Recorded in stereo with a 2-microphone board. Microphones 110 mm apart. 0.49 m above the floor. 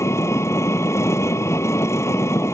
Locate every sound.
0.0 s an engine running: 25° left (ahead or behind)